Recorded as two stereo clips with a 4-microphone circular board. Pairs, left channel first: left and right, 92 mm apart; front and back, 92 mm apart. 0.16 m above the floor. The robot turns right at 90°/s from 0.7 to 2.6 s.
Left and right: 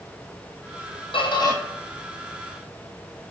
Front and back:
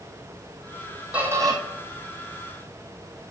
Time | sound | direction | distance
1.1 | a squeak | 100° left | 1.2 m